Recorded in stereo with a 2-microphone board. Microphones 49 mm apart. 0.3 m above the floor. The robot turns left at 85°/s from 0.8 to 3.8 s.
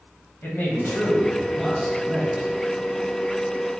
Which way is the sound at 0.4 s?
75° left.